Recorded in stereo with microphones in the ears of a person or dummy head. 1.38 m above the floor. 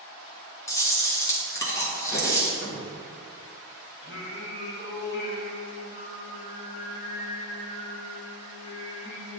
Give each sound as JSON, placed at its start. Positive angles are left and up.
{"t": 0.7, "sound": "chewing", "side_deg": 15, "distance_m": 1.4}
{"t": 2.6, "sound": "a cupboard door", "side_deg": 65, "distance_m": 2.0}
{"t": 4.0, "sound": "singing", "side_deg": 65, "distance_m": 1.4}